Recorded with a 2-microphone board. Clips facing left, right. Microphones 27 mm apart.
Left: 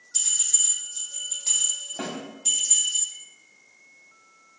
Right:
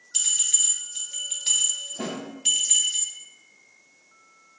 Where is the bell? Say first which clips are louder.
Right 2 dB; 80° right, 1.9 m.